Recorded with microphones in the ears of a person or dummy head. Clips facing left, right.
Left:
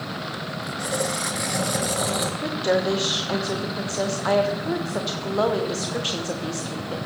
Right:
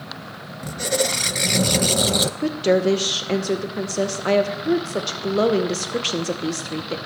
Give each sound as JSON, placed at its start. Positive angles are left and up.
{"t": 0.6, "sound": "a squeak", "side_deg": -35, "distance_m": 0.5}
{"t": 2.4, "sound": "a woman speaking", "side_deg": -30, "distance_m": 1.1}